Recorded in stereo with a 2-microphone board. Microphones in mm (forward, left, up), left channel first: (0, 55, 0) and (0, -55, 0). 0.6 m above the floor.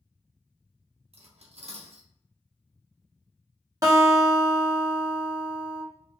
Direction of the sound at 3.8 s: 30° right (ahead or behind).